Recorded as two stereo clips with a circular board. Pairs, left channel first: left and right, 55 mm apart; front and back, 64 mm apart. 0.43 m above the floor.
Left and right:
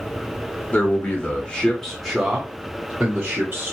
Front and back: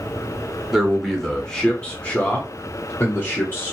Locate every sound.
0.7 s a man speaking: 90° left, 1.0 m; by 3.7 s 45° right, 1.3 m